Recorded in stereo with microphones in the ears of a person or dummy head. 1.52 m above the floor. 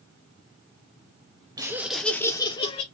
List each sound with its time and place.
1.6 s laughter: 20° right (ahead or behind), 0.8 m; by 2.8 s 30° left (ahead or behind), 1.1 m